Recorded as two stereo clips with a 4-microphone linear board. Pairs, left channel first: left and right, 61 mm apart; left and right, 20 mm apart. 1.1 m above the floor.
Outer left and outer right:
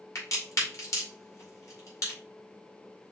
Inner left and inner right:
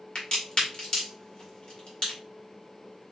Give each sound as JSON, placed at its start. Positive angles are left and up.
{"t": 0.1, "sound": "a crack", "side_deg": 55, "distance_m": 2.0}